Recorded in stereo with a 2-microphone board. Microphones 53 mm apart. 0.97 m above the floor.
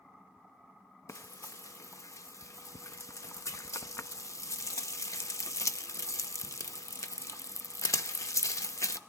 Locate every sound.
1.1 s frying: 80° left, 0.7 m